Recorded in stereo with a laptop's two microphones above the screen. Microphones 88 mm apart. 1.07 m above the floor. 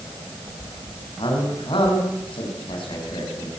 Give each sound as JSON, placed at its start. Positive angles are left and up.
{"t": 1.2, "sound": "a man speaking", "side_deg": 80, "distance_m": 7.5}